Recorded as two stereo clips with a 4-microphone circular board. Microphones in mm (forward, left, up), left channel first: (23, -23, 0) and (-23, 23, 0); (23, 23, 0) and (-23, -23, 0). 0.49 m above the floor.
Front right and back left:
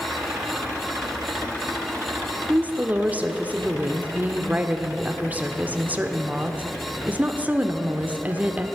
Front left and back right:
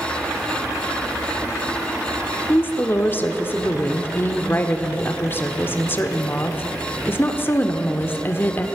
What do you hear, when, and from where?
2.5 s a woman speaking: 80° left, 1.1 m